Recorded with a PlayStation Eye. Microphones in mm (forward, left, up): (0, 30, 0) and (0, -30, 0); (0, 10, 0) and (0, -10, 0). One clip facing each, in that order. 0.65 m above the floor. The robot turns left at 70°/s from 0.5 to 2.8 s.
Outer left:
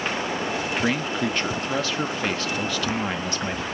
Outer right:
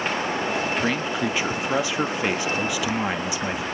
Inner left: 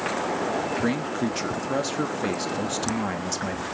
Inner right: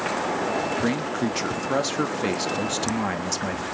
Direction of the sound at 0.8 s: Centre (ahead or behind).